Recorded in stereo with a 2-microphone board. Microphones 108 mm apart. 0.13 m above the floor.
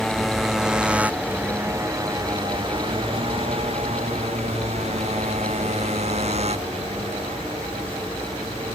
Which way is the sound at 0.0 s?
Centre (ahead or behind).